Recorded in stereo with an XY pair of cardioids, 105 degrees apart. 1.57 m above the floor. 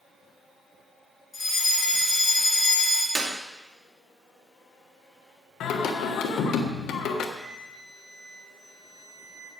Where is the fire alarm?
25° left, 6.5 m.